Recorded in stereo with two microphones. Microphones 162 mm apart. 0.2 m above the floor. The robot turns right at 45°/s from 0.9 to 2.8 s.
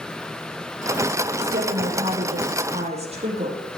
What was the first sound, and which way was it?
A woman speaking, 105° right.